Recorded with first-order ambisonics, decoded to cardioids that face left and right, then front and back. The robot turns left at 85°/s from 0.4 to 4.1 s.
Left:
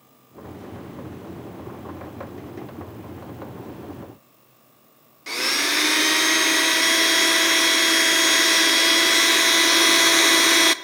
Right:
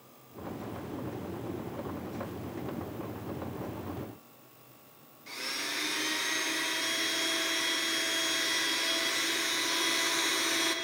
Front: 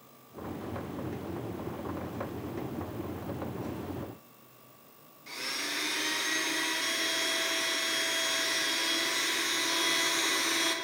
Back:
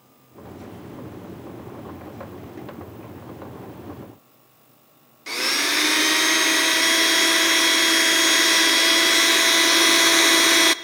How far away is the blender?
About 0.5 m.